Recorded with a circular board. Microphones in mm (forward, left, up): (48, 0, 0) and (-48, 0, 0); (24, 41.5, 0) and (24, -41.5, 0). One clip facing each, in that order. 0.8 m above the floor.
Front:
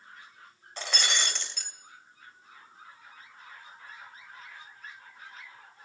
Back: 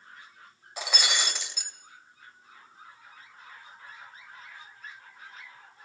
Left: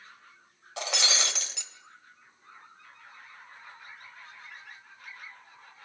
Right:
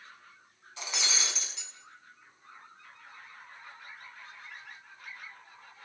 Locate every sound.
0.8 s breaking glass: 100° left, 2.5 m